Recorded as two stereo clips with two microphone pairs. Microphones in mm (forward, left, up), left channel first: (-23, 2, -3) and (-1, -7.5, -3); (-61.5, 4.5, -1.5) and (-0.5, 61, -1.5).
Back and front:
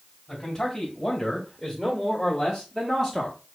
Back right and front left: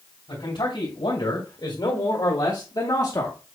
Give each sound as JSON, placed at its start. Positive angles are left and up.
{"t": 0.3, "sound": "a man speaking", "azimuth_deg": -125, "distance_m": 3.5}